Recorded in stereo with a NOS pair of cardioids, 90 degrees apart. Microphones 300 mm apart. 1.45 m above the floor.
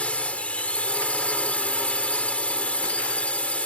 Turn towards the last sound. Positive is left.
turn(degrees=5)